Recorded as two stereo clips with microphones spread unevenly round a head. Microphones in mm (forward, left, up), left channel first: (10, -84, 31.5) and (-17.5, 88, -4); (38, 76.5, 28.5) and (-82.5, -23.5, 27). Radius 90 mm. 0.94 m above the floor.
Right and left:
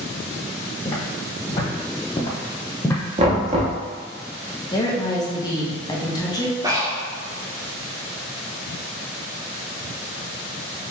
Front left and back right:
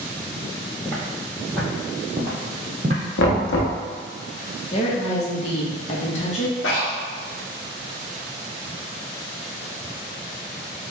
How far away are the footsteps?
About 1.7 m.